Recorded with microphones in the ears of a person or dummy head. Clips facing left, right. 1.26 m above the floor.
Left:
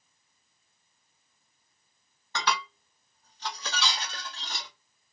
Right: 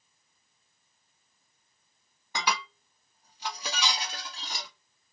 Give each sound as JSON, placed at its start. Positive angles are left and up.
{"t": 2.4, "sound": "dishes clattering", "side_deg": -5, "distance_m": 0.6}